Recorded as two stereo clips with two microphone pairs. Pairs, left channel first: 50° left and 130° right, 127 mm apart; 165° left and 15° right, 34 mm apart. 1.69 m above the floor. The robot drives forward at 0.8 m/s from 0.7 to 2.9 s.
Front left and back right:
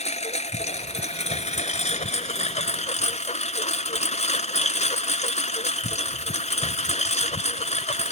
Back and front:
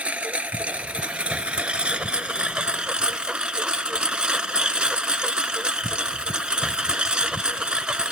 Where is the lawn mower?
30° left; by 8.1 s 45° left.